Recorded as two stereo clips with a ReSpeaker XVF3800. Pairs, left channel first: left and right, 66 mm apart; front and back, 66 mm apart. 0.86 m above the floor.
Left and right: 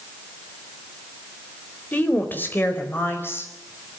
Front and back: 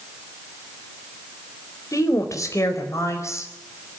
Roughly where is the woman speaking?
Ahead left.